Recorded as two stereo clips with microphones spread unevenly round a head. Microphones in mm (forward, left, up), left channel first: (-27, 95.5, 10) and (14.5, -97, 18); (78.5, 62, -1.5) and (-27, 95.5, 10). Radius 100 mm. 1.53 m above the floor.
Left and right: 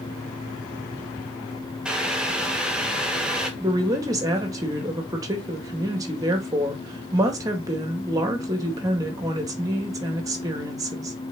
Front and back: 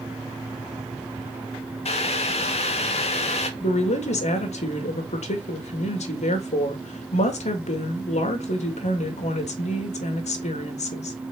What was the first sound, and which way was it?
Boiling, 10° left.